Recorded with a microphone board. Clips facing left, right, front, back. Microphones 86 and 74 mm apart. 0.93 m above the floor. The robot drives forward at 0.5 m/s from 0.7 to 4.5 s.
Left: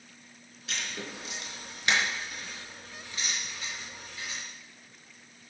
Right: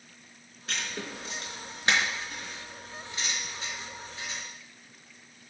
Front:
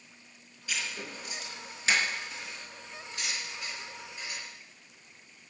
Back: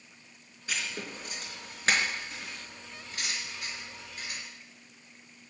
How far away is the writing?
About 4 m.